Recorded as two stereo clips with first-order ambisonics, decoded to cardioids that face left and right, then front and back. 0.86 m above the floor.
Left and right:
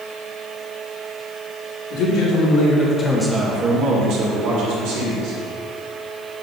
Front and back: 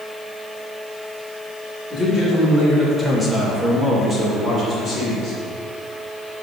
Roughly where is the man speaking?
Left.